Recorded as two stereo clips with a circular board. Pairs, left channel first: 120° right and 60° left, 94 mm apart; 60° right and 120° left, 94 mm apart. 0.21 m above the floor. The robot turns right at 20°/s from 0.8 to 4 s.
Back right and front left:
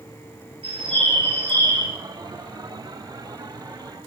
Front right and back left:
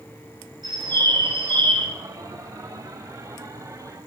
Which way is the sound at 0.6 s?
80° left.